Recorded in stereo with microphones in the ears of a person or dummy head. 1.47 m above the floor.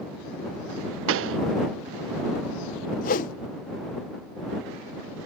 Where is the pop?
75° right (ahead or behind).